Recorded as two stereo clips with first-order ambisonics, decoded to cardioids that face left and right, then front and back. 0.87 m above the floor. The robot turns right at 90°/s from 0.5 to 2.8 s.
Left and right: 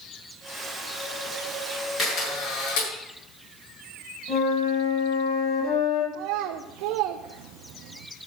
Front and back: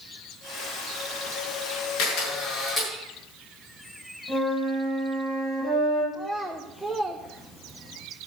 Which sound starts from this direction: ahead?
A camera shutter, at 2.0 s.